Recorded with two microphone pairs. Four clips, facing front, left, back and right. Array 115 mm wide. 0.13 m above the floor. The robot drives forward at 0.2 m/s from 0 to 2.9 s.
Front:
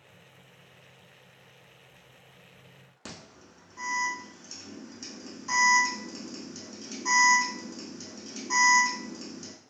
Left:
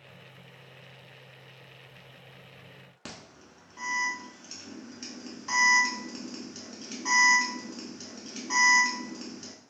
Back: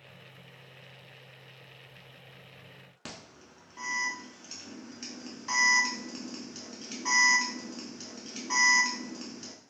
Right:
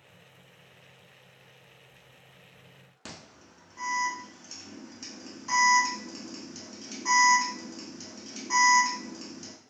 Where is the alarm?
Straight behind, 0.7 m.